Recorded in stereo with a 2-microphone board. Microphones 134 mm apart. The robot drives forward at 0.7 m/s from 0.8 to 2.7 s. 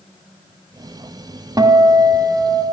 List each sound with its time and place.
1.6 s a guitar: 30° right (ahead or behind), 0.9 m; by 2.6 s 25° right (ahead or behind), 1.0 m